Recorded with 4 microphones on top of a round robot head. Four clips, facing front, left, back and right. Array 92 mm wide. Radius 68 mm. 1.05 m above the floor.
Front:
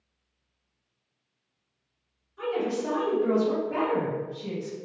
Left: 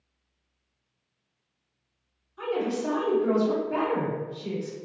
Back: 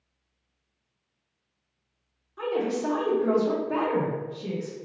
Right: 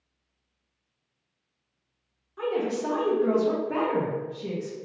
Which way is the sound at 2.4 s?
130° right.